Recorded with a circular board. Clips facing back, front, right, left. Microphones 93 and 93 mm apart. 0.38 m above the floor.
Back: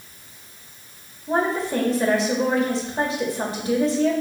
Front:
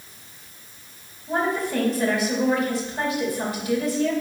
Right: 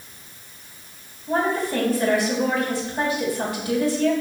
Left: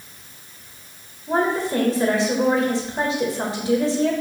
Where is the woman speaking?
140° left, 1.3 m.